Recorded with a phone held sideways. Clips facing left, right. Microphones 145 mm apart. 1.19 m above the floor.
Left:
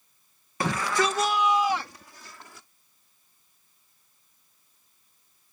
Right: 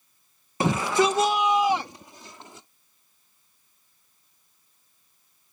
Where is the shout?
20° right (ahead or behind); by 2.7 s 25° right (ahead or behind).